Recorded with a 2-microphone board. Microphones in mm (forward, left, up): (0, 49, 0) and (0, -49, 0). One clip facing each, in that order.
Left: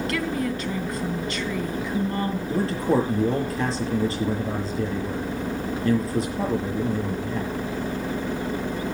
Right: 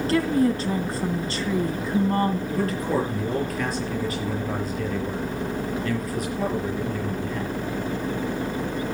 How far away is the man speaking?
About 7 m.